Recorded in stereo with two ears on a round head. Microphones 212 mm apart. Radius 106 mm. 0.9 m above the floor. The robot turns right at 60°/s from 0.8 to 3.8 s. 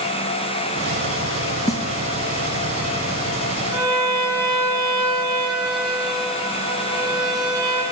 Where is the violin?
20° right (ahead or behind), 3.5 m; by 7.8 s 15° right (ahead or behind), 3.5 m.